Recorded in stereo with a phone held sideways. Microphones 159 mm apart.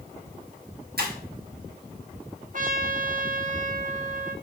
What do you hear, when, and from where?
1.0 s breaking glass: 80° right, 4.5 m
2.5 s a trumpet: 55° right (ahead or behind), 1.4 m